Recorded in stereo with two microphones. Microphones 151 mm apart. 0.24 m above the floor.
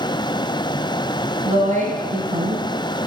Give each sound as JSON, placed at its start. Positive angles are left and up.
{"t": 1.4, "sound": "a woman speaking", "side_deg": -50, "distance_m": 2.0}